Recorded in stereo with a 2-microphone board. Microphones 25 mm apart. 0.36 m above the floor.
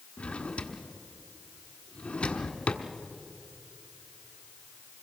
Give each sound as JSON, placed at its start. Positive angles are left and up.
{"t": 0.2, "sound": "a drawer", "side_deg": 55, "distance_m": 1.5}